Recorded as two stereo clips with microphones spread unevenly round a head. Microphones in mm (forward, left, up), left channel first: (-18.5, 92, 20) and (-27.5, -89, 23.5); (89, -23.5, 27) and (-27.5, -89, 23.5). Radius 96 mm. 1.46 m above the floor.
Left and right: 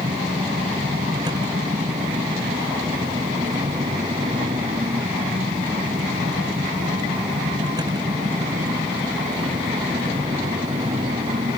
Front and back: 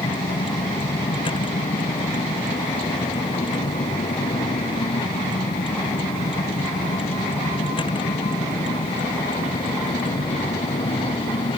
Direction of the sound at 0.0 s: 20° right.